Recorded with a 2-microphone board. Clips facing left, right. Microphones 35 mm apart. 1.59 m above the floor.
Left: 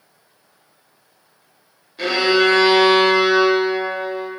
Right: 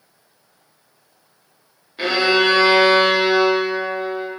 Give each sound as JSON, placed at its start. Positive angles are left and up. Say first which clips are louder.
{"t": 2.0, "sound": "a violin", "louder": "even", "side_deg": -25, "distance_m": 1.2}